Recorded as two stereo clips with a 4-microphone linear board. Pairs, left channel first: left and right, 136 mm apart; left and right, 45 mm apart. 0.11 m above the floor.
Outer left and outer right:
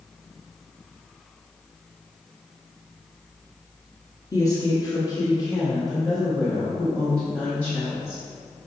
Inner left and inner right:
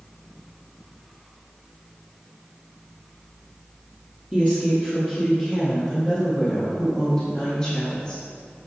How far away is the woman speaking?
About 1.5 m.